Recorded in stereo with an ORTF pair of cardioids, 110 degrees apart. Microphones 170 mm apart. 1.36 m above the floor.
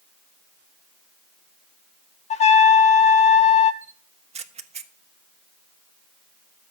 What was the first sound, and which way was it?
A trumpet, 45° left.